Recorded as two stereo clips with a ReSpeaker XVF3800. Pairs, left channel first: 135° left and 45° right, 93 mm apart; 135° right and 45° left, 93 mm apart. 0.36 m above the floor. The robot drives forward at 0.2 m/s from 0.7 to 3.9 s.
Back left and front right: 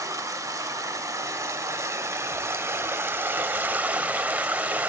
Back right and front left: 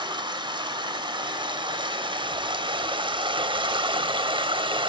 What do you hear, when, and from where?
0.0 s running water: 10° left, 1.1 m; by 4.9 s 30° left, 0.5 m